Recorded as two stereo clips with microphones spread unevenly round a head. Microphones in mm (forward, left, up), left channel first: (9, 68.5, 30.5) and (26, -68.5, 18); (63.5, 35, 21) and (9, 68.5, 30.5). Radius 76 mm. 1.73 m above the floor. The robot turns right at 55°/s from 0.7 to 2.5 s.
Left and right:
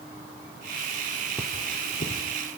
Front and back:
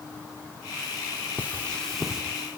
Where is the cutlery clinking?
30° left, 2.5 m; by 2.2 s 75° left, 2.5 m.